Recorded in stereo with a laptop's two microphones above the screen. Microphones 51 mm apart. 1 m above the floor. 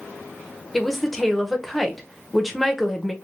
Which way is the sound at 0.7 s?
Centre (ahead or behind).